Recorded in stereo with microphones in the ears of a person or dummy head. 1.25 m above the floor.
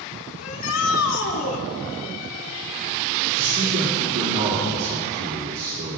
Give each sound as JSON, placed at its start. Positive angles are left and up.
{"t": 0.4, "sound": "a shout", "side_deg": 75, "distance_m": 3.5}
{"t": 3.4, "sound": "a man speaking", "side_deg": -75, "distance_m": 3.0}